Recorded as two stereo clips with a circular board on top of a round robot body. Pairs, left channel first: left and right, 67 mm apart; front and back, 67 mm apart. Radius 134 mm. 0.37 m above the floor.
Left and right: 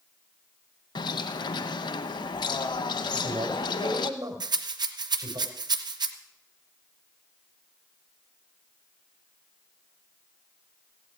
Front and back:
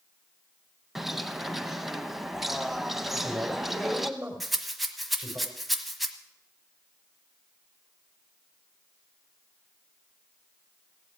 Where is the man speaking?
105° right, 3.5 m.